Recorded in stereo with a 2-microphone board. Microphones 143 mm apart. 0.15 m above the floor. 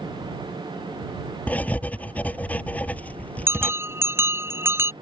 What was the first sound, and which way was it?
Writing, 10° left (ahead or behind).